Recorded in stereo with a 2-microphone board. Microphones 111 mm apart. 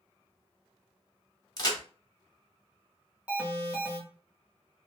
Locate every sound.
1.6 s a crack: 35° left (ahead or behind), 0.8 m
3.3 s an alarm: 10° right (ahead or behind), 1.3 m